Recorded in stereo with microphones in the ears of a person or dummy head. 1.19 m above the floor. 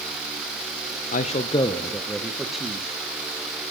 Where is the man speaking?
40° left (ahead or behind), 0.5 m; by 2.9 s 5° right (ahead or behind), 1.1 m.